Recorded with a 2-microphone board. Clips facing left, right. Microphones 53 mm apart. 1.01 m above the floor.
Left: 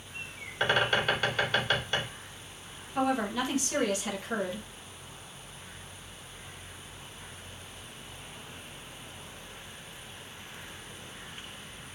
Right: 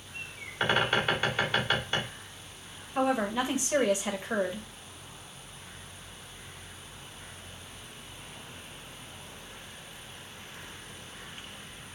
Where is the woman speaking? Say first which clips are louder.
Right 1 dB; 20° right (ahead or behind), 0.9 m.